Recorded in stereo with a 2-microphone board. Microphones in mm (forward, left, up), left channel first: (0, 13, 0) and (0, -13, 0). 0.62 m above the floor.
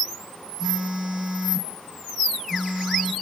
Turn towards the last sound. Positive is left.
turn(degrees=-30)  # may be behind; listen again after turning